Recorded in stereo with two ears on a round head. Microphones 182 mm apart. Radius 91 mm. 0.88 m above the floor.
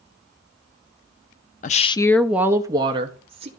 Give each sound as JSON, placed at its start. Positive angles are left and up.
{"t": 1.6, "sound": "a woman speaking", "side_deg": 40, "distance_m": 0.5}